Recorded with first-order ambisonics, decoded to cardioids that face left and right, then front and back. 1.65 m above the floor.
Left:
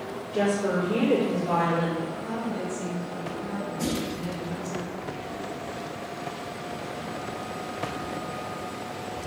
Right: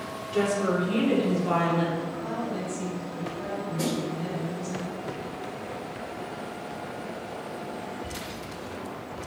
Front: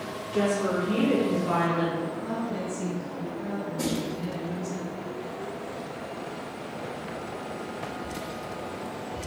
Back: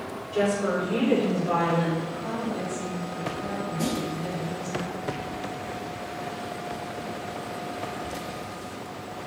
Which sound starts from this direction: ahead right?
A snare drum, at 3.8 s.